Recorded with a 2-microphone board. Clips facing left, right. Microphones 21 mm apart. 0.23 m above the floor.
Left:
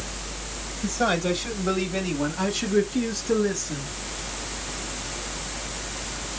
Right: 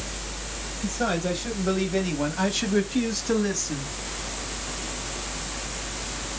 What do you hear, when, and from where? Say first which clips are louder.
0.8 s a man speaking: left 3 dB; 25° left (ahead or behind), 1.2 m; by 3.9 s 45° right (ahead or behind), 1.7 m